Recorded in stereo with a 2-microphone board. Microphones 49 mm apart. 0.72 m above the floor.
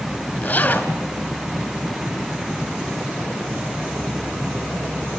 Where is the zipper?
30° left (ahead or behind), 3 m.